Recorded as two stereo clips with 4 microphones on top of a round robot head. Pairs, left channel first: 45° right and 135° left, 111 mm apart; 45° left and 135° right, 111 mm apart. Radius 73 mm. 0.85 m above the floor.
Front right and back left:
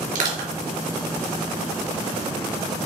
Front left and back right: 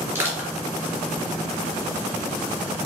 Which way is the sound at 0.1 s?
155° left.